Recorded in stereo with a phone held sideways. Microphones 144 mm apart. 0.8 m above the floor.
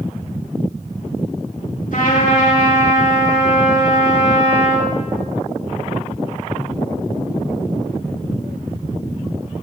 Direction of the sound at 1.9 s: 65° left (ahead or behind).